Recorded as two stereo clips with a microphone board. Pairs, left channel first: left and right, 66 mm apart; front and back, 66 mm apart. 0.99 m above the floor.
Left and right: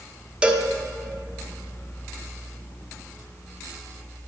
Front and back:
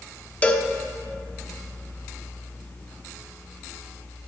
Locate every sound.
0.4 s a cowbell: 40° right, 0.5 m